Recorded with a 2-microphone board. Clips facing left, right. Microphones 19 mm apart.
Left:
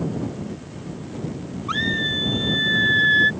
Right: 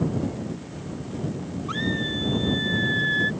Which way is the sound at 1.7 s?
25° left (ahead or behind).